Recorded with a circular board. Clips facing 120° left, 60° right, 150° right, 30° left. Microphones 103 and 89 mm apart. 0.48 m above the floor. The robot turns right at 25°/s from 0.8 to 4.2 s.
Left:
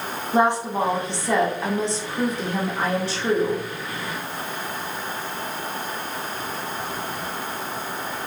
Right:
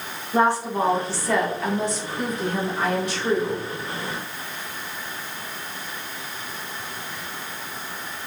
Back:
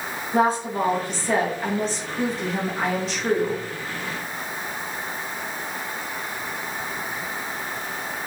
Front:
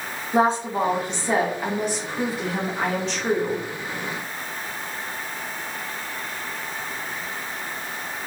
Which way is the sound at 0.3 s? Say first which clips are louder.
Even, front 1 dB; 65° left.